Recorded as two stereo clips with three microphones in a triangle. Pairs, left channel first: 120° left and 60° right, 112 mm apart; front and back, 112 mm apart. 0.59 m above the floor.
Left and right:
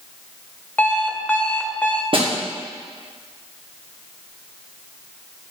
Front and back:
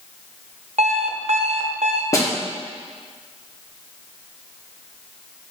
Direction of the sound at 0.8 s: 165° right.